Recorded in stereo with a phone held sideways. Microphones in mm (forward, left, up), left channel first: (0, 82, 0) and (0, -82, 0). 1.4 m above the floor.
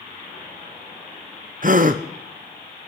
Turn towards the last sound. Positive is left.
turn(degrees=-55)  # may be behind; listen again after turning